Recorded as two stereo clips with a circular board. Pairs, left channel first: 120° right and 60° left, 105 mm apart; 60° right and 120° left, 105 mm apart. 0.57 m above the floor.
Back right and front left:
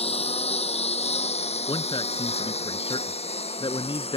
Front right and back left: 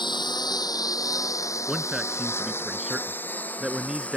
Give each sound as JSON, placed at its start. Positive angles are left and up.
{"t": 0.0, "sound": "a lawn mower", "azimuth_deg": -105}
{"t": 1.7, "sound": "a man speaking", "azimuth_deg": -155}